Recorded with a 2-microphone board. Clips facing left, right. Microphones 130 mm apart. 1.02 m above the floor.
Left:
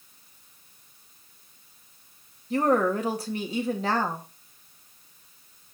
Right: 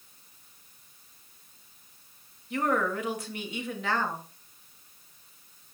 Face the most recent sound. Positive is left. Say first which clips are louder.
# left 5 dB
turn(degrees=35)  # may be behind; listen again after turning